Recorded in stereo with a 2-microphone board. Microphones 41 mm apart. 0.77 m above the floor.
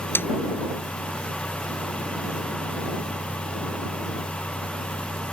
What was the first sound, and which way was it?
A snare drum, 85° left.